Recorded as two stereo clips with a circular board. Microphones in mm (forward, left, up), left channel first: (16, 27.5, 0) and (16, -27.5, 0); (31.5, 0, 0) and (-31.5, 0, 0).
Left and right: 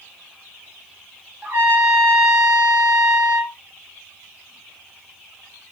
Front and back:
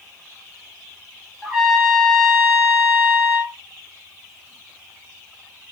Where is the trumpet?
85° right, 1.4 m.